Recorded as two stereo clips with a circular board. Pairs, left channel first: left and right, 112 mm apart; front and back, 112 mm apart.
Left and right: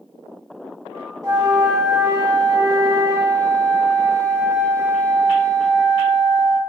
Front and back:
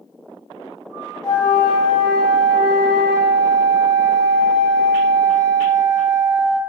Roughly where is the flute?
Ahead right.